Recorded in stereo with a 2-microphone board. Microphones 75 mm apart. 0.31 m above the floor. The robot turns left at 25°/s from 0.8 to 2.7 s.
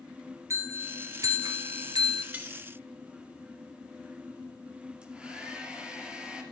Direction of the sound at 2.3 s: 25° right (ahead or behind).